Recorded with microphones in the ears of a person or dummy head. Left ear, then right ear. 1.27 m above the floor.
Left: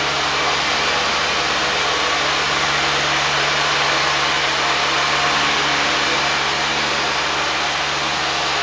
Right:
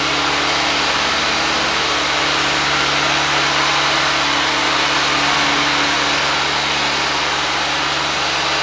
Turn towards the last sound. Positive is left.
turn(degrees=-35)  # may be behind; listen again after turning